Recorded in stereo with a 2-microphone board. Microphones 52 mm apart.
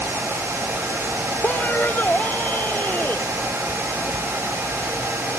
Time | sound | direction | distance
1.4 | a man speaking | 40° left (ahead or behind) | ?